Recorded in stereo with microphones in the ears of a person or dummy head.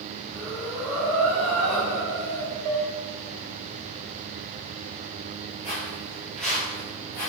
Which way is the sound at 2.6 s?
20° right (ahead or behind).